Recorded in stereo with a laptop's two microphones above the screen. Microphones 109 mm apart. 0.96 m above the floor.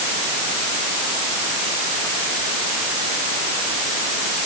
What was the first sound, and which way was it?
Only background noise.